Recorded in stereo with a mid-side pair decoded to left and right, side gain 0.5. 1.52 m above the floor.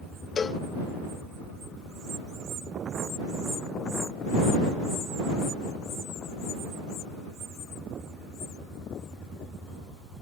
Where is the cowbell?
35° left.